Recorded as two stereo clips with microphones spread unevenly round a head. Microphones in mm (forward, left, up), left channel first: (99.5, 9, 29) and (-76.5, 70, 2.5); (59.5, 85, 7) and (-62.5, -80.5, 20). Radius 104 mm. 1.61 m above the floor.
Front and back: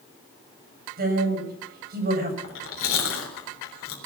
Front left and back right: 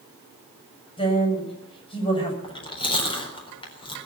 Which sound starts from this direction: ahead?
Chewing, at 2.4 s.